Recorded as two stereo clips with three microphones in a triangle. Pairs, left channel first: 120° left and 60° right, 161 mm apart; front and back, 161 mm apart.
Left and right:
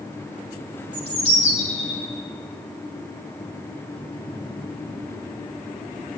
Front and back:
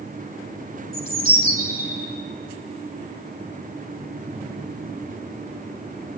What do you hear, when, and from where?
0.9 s a bird: 160° right, 4 m